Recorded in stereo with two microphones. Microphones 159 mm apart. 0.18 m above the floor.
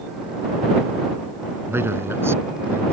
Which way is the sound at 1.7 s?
15° right (ahead or behind).